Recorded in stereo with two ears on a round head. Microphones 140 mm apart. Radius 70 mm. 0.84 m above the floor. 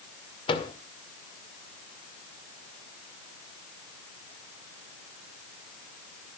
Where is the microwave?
35° left (ahead or behind), 1.9 m.